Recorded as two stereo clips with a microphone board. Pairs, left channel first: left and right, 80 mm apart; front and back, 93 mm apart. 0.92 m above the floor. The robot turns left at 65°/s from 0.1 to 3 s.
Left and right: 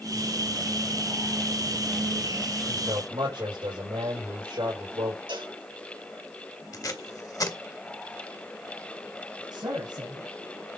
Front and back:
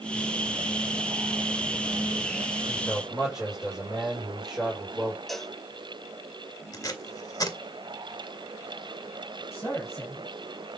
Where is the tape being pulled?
50° left, 1.8 m.